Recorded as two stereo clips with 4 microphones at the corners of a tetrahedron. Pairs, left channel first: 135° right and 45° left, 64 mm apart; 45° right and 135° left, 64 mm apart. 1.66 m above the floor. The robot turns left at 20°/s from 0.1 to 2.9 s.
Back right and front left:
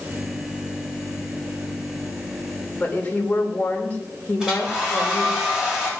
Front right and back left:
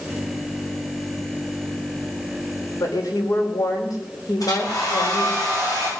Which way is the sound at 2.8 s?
65° right.